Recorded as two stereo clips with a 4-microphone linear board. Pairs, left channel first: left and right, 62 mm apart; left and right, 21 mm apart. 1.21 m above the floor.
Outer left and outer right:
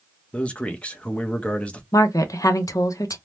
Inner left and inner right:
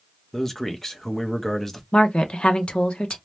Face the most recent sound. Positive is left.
turn(degrees=65)  # may be behind; listen again after turning